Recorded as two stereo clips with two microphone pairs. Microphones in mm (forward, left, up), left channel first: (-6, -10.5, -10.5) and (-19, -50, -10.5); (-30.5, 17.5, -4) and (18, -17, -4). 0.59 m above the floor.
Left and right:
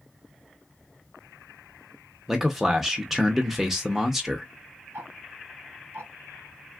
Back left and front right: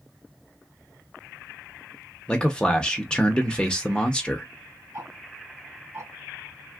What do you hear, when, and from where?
2.3 s a man speaking: 170° right, 0.7 m
4.9 s ticking: 80° right, 1.9 m